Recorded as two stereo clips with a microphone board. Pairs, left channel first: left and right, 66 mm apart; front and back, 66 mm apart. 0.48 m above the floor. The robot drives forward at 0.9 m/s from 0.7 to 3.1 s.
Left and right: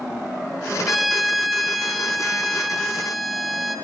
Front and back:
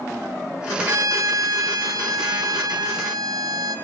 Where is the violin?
Straight behind, 1.0 m.